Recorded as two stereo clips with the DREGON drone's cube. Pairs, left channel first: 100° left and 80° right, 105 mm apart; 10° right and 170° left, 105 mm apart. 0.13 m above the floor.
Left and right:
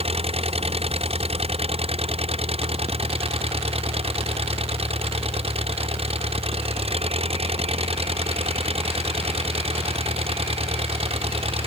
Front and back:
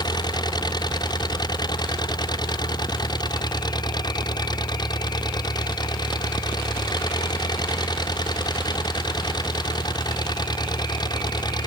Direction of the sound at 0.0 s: 60° right.